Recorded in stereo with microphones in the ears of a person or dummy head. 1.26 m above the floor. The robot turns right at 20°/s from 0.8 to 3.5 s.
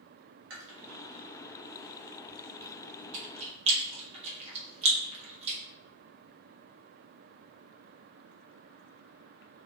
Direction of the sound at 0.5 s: 60° right (ahead or behind).